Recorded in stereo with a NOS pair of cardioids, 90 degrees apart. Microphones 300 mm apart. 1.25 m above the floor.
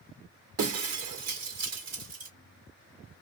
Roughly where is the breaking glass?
Ahead right.